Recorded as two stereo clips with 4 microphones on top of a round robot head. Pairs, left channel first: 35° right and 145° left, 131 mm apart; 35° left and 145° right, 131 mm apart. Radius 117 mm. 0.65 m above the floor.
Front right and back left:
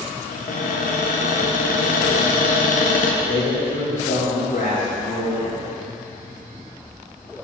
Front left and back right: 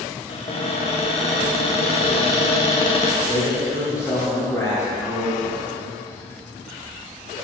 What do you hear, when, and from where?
0.3 s a cupboard door: 10° right, 0.7 m
3.2 s a man speaking: 35° right, 1.9 m